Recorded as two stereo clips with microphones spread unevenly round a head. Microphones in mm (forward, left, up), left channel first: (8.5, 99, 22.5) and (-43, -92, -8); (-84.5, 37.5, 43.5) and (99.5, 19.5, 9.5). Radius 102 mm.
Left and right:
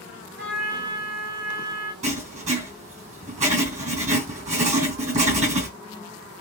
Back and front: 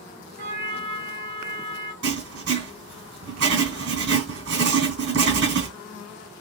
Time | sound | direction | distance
0.4 | a trumpet | 55° right | 2 m
2.0 | writing | 45° right | 2.5 m